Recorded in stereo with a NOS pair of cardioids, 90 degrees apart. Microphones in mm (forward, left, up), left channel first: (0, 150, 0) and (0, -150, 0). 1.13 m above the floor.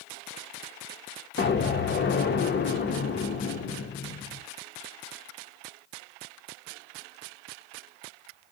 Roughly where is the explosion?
Ahead left.